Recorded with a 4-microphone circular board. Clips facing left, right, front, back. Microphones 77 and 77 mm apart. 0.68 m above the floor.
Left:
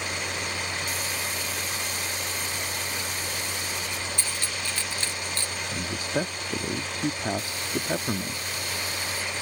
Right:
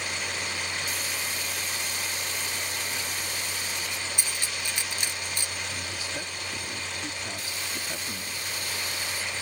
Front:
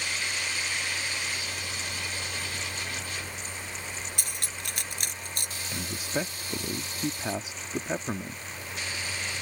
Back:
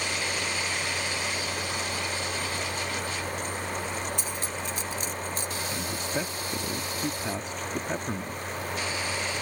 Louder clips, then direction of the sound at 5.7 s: Left 6 dB, front 2 dB; 80° left.